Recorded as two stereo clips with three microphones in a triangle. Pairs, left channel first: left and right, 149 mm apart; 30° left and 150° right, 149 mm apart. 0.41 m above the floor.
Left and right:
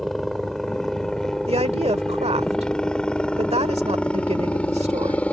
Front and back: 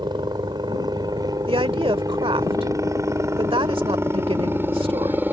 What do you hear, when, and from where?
0.0 s a helicopter: straight behind; by 5.3 s 155° left
1.5 s a woman speaking: 110° right